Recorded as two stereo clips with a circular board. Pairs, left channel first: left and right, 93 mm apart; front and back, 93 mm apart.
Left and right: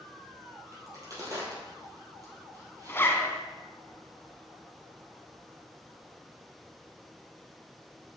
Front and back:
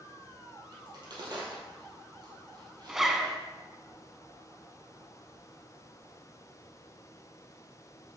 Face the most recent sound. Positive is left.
turn(degrees=100)